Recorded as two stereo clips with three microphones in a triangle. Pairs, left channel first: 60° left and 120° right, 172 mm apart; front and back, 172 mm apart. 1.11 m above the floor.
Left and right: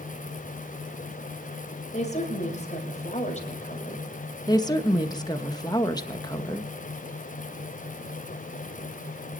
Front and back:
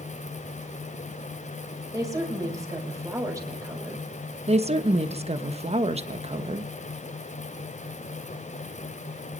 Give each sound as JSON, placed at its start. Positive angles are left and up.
{"t": 1.9, "sound": "a woman speaking", "azimuth_deg": 110, "distance_m": 5.0}
{"t": 4.5, "sound": "a woman speaking", "azimuth_deg": 125, "distance_m": 1.3}